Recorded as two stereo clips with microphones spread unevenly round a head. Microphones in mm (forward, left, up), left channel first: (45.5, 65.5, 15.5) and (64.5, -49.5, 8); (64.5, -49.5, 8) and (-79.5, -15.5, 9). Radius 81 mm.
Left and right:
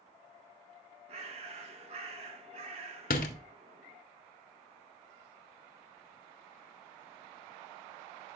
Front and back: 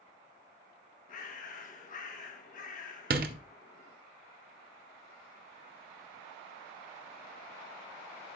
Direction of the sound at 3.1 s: 125° left.